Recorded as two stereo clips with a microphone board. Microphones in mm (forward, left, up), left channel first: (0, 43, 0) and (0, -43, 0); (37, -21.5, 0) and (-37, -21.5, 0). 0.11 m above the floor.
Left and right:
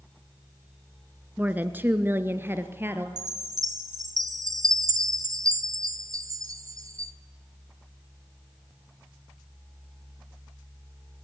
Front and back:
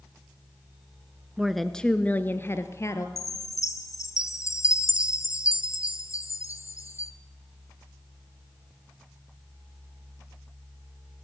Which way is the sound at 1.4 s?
110° right.